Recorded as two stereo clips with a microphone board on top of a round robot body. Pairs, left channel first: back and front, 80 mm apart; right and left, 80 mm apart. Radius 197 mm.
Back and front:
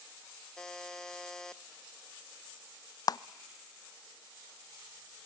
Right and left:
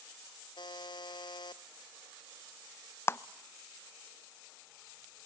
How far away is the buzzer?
About 0.8 m.